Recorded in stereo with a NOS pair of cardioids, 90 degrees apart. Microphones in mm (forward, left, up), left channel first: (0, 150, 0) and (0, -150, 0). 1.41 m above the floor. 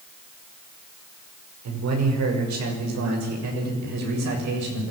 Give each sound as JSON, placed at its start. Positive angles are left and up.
{"t": 1.6, "sound": "a man speaking", "azimuth_deg": -65, "distance_m": 6.0}